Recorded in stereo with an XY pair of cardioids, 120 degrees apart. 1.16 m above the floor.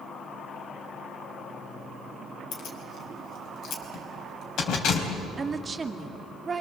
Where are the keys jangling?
65° left, 4.5 m.